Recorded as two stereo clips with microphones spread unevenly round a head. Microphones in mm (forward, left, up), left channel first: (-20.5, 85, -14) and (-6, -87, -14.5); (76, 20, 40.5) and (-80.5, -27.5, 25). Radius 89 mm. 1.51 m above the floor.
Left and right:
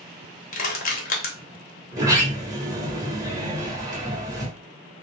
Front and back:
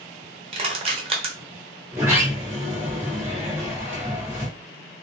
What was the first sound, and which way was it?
Crushing, 140° left.